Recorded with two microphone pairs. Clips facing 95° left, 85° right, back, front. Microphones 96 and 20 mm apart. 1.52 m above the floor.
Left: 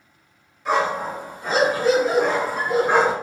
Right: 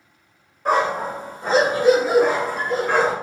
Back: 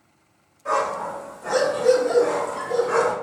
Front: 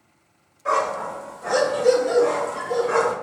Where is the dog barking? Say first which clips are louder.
Right 2 dB, front 1 dB; 65° right, 1.8 m; by 3.1 s 85° left, 1.3 m.